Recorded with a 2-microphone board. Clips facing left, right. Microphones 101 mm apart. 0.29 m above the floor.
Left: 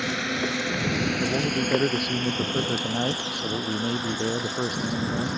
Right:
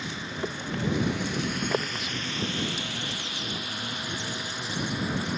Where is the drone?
70° left (ahead or behind); by 5.4 s 25° left (ahead or behind).